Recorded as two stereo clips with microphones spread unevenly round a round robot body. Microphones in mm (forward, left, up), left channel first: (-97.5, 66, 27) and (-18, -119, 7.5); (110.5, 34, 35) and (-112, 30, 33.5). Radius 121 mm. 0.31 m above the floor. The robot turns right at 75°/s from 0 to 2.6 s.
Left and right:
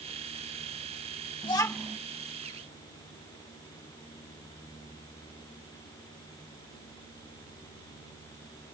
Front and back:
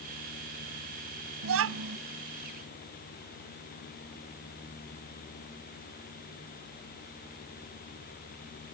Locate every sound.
1.4 s a child speaking: 175° left; by 2.0 s 145° right